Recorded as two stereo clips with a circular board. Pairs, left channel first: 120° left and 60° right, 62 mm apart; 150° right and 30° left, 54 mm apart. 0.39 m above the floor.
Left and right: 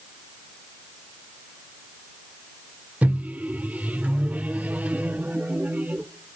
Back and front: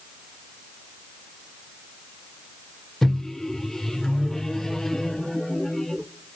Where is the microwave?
75° right, 0.6 m.